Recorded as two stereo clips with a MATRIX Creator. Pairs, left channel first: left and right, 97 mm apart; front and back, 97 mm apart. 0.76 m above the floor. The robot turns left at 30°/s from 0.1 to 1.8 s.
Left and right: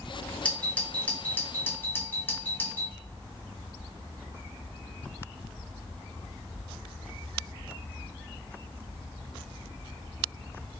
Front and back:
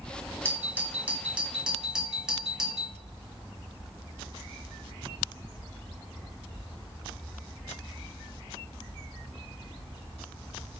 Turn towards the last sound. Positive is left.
turn(degrees=105)